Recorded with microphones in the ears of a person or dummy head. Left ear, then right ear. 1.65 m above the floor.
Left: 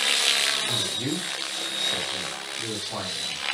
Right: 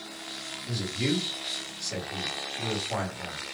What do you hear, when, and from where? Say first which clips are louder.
0.7 s a man speaking: left 4 dB; 10° right (ahead or behind), 2 m